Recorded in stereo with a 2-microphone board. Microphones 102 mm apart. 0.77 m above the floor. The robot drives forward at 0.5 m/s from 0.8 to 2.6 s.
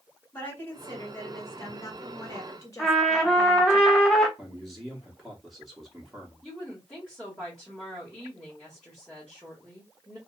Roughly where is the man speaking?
Centre.